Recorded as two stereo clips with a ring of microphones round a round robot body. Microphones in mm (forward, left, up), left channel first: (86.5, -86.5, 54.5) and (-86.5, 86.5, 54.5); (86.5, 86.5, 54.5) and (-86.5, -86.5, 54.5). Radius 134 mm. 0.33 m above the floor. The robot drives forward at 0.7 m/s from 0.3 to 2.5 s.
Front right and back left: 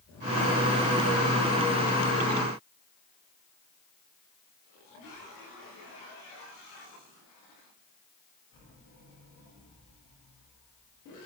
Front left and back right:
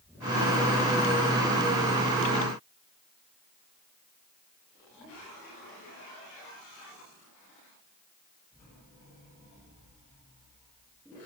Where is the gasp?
I don't hear a gasp.